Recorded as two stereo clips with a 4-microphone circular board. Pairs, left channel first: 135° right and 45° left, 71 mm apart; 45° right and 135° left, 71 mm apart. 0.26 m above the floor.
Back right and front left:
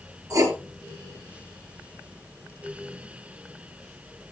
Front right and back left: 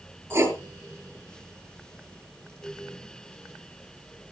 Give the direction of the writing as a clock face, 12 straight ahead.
9 o'clock.